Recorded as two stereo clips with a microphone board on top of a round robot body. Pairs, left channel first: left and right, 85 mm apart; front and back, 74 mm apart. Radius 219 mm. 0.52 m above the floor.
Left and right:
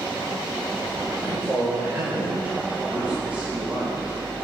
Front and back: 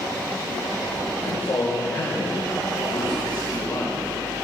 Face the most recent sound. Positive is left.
turn(degrees=-15)